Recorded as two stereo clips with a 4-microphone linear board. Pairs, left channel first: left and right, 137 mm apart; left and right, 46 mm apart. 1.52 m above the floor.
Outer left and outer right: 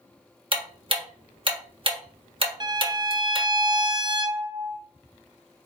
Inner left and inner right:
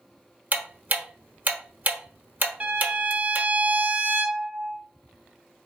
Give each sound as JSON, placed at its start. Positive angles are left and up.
{"t": 0.5, "sound": "ticking", "side_deg": -40, "distance_m": 1.0}
{"t": 2.6, "sound": "a violin", "side_deg": -30, "distance_m": 0.8}